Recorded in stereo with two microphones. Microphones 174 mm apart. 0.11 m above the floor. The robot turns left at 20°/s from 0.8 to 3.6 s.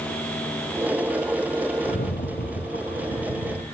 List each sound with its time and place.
1.8 s a rattle: 125° left, 3.5 m; by 3.6 s 90° left, 3.5 m